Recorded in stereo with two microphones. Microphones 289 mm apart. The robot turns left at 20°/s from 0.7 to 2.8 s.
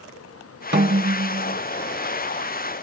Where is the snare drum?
40° right (ahead or behind), 0.8 m; by 1.6 s 55° right (ahead or behind), 0.8 m.